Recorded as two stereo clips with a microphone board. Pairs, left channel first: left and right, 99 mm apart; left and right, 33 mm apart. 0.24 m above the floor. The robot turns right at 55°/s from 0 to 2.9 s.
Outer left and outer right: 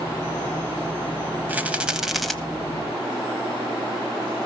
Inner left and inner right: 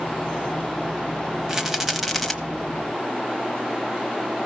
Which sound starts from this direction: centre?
A rattle, at 1.5 s.